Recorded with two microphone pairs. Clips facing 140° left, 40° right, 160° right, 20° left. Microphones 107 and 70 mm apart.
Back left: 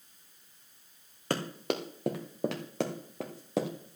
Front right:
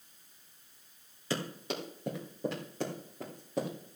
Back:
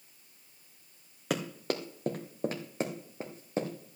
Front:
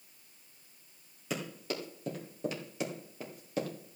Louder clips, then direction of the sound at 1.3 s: Back left 4 dB, back 5 dB; 175° left.